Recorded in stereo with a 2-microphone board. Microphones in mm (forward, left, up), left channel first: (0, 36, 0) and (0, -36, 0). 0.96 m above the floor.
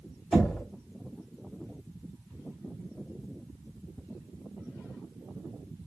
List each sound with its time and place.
0.3 s knocking: centre (ahead or behind), 1.3 m